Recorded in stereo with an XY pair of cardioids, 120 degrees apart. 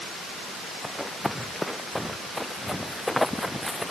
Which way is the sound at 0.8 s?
5° left.